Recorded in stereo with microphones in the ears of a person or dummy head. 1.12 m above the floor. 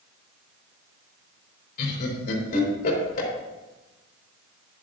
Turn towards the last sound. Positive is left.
turn(degrees=50)  # may be behind; listen again after turning